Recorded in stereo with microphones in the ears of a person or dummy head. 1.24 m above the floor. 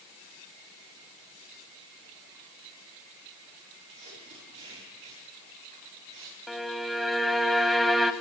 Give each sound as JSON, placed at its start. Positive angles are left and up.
{"t": 3.9, "sound": "tape being pulled", "side_deg": -40, "distance_m": 9.0}
{"t": 6.5, "sound": "a violin", "side_deg": 0, "distance_m": 1.3}